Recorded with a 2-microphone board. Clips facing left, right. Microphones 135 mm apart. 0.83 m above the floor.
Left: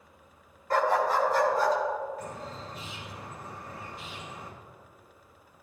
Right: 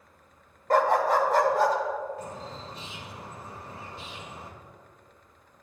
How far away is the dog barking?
About 1.0 m.